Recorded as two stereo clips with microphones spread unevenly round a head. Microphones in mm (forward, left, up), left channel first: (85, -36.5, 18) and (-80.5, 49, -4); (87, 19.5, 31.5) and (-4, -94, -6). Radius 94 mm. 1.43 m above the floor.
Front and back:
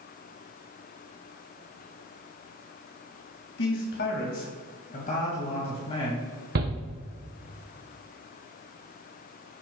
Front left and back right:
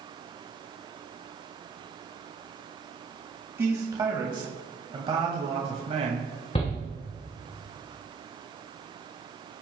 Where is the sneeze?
No sneeze in this recording.